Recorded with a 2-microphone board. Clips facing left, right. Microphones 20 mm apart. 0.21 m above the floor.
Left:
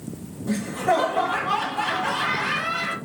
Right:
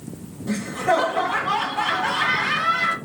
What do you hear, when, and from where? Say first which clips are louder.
0.5 s laughter: right 1 dB; 20° right (ahead or behind), 1.5 m